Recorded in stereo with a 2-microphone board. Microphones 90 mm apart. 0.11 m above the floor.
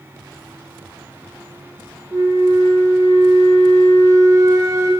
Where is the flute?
40° right (ahead or behind), 0.9 m.